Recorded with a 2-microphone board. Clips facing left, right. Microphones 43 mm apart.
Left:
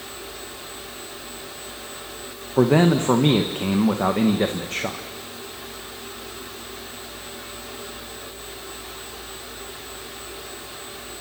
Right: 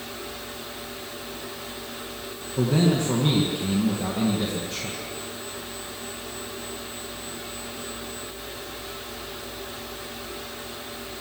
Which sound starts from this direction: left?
A man speaking, at 2.6 s.